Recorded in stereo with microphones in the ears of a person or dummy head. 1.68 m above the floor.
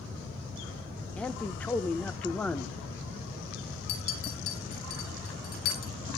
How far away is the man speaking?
About 1.1 m.